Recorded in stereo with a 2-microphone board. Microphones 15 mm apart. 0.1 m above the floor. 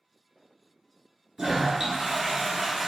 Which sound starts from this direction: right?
A toilet flushing, at 1.4 s.